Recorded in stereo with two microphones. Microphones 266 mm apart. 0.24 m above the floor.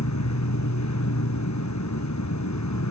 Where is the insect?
80° left, 1.1 m.